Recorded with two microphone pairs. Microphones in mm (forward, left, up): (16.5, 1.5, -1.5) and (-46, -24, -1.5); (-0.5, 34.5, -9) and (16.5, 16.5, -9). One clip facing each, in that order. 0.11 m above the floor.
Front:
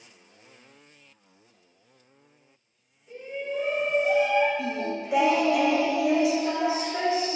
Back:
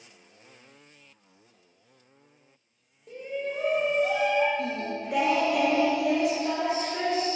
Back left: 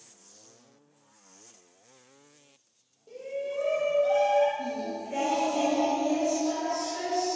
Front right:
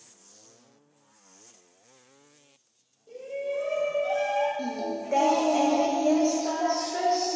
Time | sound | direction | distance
3.1 | a shout | 145° right | 3.5 m
4.6 | singing | 65° right | 1.8 m